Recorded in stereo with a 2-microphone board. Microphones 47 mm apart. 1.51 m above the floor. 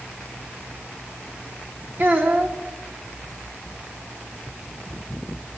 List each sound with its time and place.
2.0 s a child speaking: 45° right (ahead or behind), 1.9 m